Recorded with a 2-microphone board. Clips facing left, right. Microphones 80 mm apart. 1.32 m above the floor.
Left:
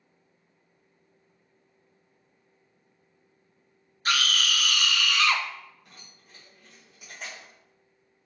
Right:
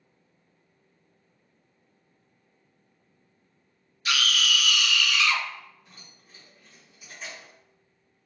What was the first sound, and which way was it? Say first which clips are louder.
A scream: even; 45° left (ahead or behind).